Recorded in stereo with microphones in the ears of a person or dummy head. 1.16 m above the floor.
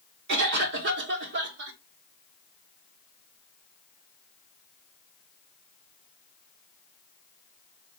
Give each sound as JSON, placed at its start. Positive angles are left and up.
{"t": 0.3, "sound": "a cough", "side_deg": -65, "distance_m": 1.4}